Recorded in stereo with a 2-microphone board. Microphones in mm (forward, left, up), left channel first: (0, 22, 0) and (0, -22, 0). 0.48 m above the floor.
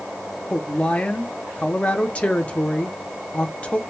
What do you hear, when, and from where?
0.5 s a woman speaking: 30° left (ahead or behind), 0.8 m